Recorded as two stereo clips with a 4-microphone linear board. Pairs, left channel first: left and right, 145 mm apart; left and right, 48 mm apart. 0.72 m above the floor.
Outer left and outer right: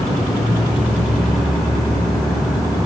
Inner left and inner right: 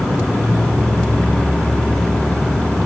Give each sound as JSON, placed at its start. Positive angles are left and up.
{"t": 0.0, "sound": "an insect", "side_deg": 5, "distance_m": 5.5}